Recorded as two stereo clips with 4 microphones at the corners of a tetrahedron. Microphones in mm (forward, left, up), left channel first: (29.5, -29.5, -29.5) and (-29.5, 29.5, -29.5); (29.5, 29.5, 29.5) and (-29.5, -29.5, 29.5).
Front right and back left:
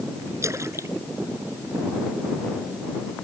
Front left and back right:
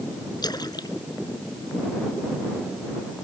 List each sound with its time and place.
0.4 s a splash: 80° left